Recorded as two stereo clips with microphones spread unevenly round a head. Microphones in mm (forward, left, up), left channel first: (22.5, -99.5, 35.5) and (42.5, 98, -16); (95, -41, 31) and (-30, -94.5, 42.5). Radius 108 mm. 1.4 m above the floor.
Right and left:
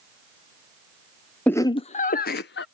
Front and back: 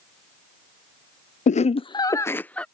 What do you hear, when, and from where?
1.5 s laughter: 10° right; by 2.6 s 60° right